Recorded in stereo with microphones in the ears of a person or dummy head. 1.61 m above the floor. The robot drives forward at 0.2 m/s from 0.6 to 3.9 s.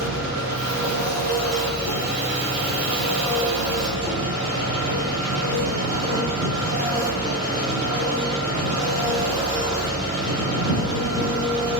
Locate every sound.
0.0 s an engine running: 55° right (ahead or behind), 0.7 m; by 11.8 s 30° right (ahead or behind), 1.1 m